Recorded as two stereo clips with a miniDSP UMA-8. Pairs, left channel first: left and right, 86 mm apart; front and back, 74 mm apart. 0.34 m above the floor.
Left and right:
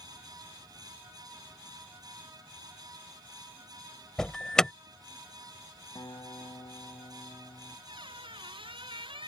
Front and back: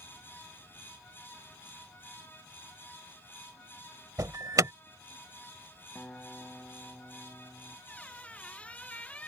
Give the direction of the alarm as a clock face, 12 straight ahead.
6 o'clock.